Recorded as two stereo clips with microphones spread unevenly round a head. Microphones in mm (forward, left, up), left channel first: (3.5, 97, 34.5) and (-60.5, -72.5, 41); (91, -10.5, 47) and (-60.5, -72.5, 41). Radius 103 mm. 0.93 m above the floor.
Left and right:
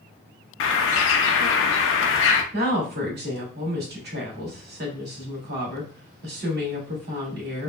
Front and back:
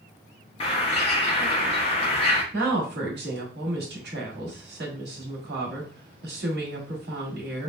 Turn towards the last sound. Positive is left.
turn(degrees=-140)